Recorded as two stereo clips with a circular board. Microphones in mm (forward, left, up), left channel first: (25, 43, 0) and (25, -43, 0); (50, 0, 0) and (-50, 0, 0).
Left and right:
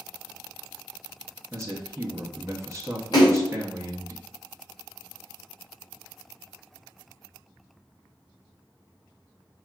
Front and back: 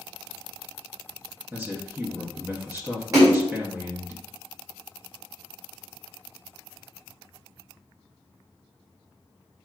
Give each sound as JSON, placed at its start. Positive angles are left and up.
{"t": 1.5, "sound": "a man speaking", "azimuth_deg": -120, "distance_m": 0.8}
{"t": 3.1, "sound": "a splash", "azimuth_deg": 125, "distance_m": 2.0}